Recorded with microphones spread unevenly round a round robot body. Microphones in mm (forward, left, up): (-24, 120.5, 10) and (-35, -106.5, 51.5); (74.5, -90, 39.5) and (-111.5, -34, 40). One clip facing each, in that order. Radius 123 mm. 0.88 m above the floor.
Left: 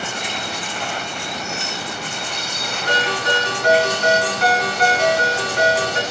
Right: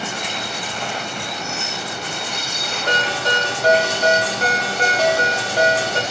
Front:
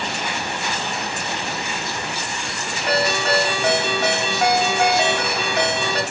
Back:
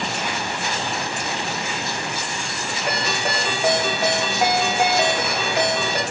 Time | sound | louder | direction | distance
2.9 | a ringtone | left 1 dB, front 6 dB | 135° right | 1.6 m